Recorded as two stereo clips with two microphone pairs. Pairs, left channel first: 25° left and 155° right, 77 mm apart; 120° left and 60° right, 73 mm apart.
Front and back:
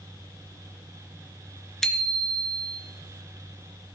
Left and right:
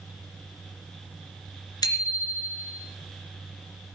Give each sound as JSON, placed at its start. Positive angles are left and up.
{"t": 1.8, "sound": "a bicycle bell", "azimuth_deg": 110, "distance_m": 2.5}